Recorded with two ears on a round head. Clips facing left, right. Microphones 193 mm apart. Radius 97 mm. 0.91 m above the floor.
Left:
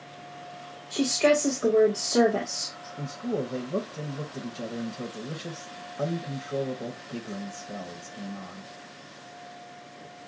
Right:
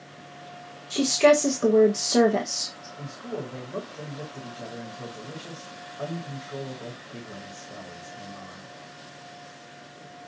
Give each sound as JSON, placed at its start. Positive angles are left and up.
{"t": 0.9, "sound": "a woman speaking", "side_deg": -45, "distance_m": 0.9}
{"t": 3.0, "sound": "a man speaking", "side_deg": 45, "distance_m": 0.9}